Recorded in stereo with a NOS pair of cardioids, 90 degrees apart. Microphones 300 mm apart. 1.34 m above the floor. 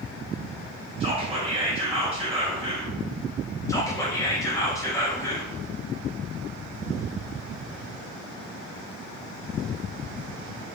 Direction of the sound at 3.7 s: 10° left.